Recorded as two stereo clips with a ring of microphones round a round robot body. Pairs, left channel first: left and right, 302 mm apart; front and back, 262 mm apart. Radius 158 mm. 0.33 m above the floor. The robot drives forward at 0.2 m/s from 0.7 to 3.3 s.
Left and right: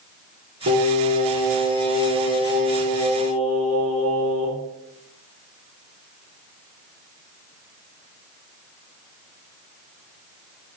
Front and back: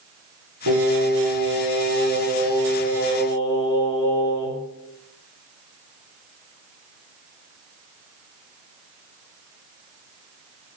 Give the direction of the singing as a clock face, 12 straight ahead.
5 o'clock.